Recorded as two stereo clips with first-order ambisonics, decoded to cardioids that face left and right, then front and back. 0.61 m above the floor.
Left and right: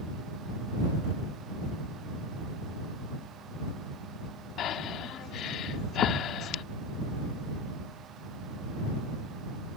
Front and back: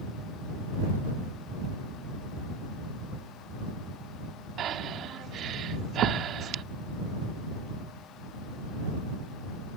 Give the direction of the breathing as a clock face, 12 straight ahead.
8 o'clock.